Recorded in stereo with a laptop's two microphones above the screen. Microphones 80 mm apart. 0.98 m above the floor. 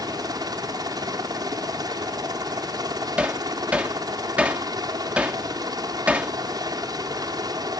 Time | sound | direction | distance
0.0 | a helicopter | 50° right (ahead or behind) | ?
3.2 | hammering | 15° right (ahead or behind) | ?